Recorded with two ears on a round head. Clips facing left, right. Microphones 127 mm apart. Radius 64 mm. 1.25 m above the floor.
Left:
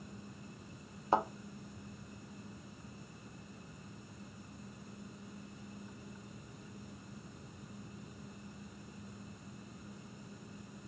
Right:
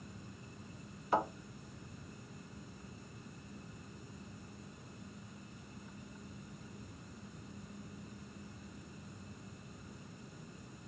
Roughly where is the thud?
Left.